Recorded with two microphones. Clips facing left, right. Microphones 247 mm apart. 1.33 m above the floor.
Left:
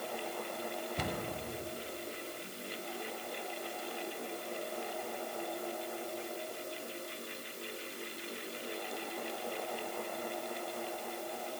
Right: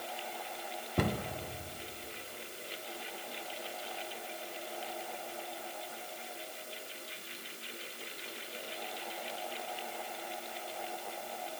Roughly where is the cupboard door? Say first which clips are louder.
Right 8 dB; right.